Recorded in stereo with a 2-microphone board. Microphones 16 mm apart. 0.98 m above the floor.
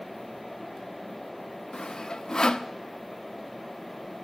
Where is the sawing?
60° left (ahead or behind), 0.7 m.